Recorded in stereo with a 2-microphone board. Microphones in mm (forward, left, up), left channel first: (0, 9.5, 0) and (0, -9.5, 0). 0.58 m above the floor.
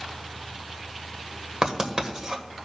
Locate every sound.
1.6 s writing: 45° right (ahead or behind), 1.4 m